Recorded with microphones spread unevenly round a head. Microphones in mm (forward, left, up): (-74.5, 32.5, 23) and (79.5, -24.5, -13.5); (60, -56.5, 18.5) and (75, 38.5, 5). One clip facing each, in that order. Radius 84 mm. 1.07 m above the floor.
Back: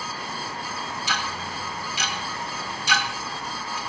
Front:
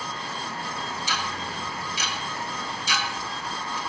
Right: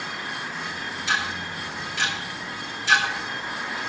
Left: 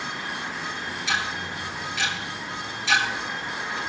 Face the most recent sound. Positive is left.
turn(degrees=125)